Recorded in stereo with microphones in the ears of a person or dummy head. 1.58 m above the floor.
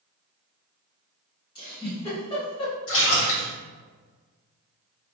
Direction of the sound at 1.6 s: 25° left (ahead or behind).